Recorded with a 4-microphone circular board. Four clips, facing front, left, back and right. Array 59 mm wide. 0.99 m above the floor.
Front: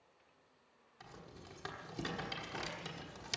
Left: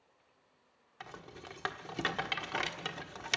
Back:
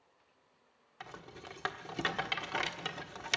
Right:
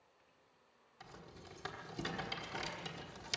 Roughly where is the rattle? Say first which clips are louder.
Left 7 dB, back 6 dB; behind left.